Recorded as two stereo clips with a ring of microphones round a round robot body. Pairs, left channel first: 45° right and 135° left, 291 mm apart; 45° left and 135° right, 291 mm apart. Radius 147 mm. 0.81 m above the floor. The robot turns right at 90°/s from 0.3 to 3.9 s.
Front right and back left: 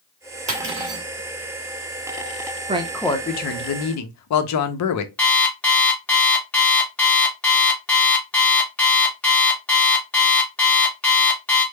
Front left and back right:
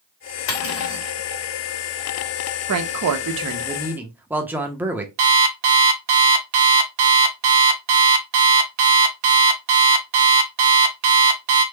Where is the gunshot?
I don't hear a gunshot.